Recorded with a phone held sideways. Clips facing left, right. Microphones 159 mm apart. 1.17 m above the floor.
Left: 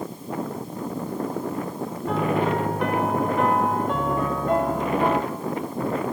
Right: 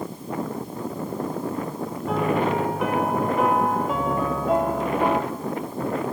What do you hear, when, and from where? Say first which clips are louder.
2.1 s a piano: even; 5° right (ahead or behind), 2 m